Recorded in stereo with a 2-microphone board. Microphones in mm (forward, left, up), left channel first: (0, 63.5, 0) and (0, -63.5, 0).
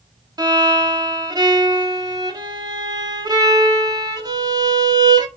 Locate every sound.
0.4 s a violin: 30° right (ahead or behind), 0.7 m